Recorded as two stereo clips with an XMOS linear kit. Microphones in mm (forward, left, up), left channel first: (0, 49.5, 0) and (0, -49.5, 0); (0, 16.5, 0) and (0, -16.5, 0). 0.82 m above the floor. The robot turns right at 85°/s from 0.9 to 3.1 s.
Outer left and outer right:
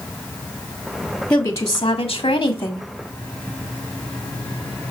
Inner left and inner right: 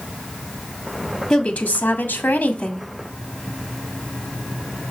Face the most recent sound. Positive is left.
turn(degrees=165)